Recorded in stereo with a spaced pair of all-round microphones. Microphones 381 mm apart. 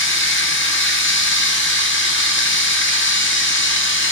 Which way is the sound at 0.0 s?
30° left (ahead or behind).